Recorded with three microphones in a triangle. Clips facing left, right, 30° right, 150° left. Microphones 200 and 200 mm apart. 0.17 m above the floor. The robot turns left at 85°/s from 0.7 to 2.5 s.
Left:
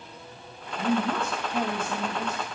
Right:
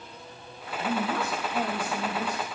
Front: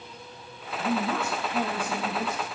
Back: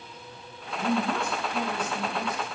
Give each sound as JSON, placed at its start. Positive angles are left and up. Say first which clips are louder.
{"t": 0.8, "sound": "a man speaking", "louder": "left 3 dB, back 1 dB", "azimuth_deg": 90, "distance_m": 7.0}